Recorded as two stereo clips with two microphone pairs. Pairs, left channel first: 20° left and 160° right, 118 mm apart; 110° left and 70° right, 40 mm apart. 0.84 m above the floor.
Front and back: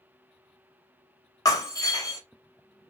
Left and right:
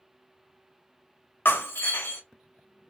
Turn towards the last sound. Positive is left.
turn(degrees=80)